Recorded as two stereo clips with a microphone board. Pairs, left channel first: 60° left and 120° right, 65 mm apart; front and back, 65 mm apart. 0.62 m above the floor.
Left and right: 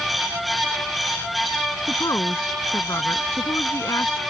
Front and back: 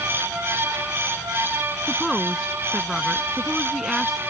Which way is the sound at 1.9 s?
95° left.